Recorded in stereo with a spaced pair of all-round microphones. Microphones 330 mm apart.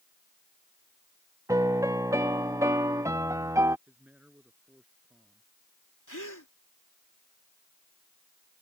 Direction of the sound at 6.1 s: 60° left (ahead or behind).